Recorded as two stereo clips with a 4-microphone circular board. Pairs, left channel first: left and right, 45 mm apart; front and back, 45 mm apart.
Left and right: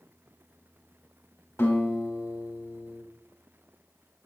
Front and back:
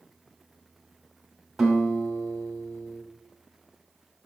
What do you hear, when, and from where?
1.6 s a guitar: 95° left, 2.5 m